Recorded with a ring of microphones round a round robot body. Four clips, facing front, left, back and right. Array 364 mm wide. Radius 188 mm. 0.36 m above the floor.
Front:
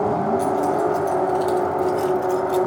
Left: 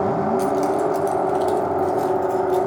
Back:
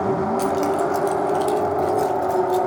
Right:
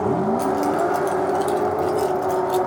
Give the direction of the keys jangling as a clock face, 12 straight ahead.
6 o'clock.